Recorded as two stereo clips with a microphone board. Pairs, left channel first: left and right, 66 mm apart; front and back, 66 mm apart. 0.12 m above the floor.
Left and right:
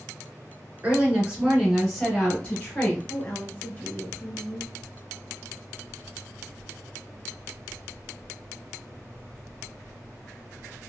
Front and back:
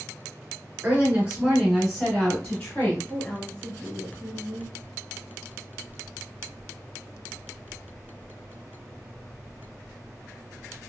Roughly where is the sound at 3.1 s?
Ahead left.